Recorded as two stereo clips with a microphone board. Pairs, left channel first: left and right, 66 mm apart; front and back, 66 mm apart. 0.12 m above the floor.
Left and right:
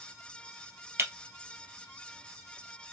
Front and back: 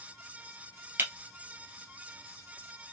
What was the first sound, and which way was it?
Breaking glass, 130° right.